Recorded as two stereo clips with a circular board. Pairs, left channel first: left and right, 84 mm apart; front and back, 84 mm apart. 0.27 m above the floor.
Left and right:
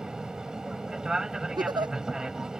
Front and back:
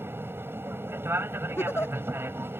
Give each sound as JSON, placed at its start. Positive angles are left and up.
{"t": 0.0, "sound": "an aircraft", "azimuth_deg": -165}
{"t": 1.6, "sound": "a giggle", "azimuth_deg": -60}